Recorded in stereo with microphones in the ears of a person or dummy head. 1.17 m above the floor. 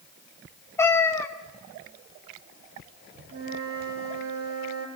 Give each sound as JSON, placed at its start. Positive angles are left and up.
{"t": 0.8, "sound": "a cat meowing", "side_deg": 15, "distance_m": 1.3}
{"t": 3.3, "sound": "a flute", "side_deg": -60, "distance_m": 3.5}